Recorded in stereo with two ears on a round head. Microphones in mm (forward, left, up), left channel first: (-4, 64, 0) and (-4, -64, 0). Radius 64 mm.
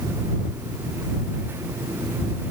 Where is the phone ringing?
I don't hear a phone ringing.